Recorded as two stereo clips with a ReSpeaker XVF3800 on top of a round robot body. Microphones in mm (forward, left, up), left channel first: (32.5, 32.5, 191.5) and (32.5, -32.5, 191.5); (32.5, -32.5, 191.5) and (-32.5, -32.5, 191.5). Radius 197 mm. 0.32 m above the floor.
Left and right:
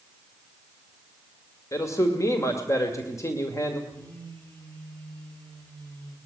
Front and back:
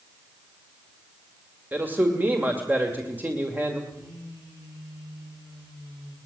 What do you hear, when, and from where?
1.7 s a man speaking: 120° left, 2.5 m
3.9 s a phone buzzing: 150° left, 9.5 m